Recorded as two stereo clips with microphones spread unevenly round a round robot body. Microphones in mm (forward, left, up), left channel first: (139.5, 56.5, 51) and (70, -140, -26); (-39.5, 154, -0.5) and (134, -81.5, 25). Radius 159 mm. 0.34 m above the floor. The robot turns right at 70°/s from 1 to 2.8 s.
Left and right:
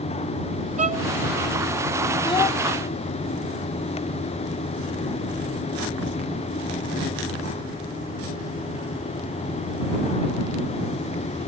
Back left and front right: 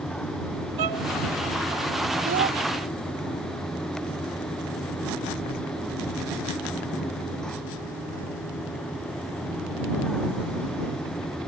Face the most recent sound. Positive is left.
turn(degrees=30)